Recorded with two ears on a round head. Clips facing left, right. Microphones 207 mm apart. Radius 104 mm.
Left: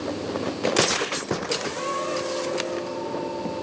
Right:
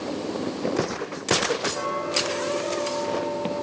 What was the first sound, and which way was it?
Ticking, 65° right (ahead or behind).